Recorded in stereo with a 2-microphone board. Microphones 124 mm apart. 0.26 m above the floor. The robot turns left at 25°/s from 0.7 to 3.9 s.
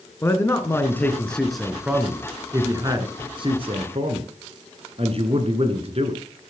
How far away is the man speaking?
About 2.5 m.